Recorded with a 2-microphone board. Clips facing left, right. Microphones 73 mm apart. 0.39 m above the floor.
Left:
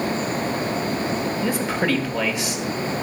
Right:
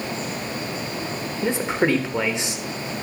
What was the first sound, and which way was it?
A man speaking, 25° right (ahead or behind).